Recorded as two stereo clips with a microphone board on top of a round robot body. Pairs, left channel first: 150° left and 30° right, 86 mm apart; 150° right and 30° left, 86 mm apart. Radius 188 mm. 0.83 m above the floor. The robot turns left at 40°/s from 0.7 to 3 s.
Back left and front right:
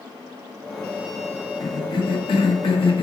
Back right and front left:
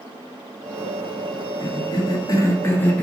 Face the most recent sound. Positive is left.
turn(degrees=135)